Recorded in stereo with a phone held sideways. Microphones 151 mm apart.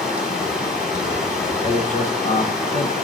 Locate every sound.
0.0 s running water: 5° right (ahead or behind), 2.5 m
1.6 s a man speaking: 55° left (ahead or behind), 1.1 m